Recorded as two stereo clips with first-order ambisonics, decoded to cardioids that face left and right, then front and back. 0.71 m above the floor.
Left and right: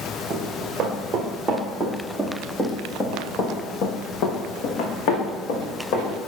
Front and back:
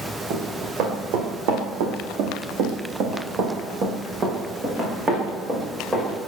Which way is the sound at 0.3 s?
145° right.